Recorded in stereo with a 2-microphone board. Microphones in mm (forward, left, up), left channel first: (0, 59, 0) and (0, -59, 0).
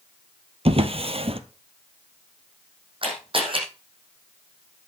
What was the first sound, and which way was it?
A drawer, 55° right (ahead or behind).